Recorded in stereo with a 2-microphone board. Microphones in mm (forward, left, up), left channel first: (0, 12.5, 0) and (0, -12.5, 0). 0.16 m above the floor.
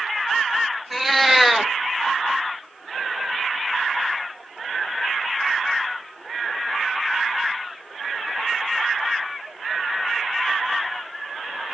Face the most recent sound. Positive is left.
turn(degrees=-5)  # may be behind; listen again after turning